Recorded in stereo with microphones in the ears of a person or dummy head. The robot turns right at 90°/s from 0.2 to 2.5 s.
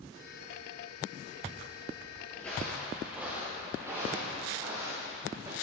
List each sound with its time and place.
2.3 s footsteps: 15° left (ahead or behind), 1.3 m; by 5.5 s 25° right (ahead or behind), 4 m